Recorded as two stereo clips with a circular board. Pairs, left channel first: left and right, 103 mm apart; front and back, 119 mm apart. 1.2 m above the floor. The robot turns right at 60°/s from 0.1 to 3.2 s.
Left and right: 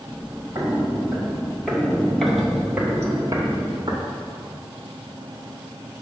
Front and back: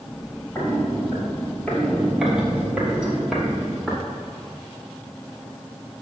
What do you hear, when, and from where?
0.6 s footsteps: 70° right, 1.5 m; by 4.0 s 95° right, 1.6 m